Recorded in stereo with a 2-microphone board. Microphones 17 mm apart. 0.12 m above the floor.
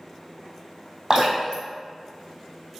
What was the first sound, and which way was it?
Dripping, 55° right (ahead or behind).